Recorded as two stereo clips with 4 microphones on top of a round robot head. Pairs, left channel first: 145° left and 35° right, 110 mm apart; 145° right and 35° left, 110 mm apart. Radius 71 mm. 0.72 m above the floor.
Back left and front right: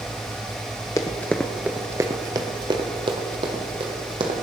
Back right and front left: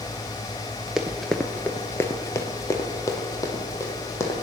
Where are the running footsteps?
115° left, 0.7 m; by 4.3 s 80° right, 2 m.